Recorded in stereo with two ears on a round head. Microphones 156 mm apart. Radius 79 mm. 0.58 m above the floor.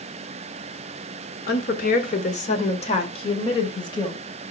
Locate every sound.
1.5 s a woman speaking: 60° left (ahead or behind), 1.6 m; by 4.2 s 25° left (ahead or behind), 3 m